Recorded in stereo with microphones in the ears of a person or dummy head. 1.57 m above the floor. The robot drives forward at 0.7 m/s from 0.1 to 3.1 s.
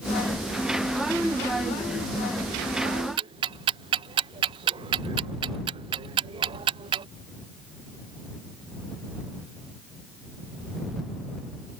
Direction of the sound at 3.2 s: 30° right (ahead or behind).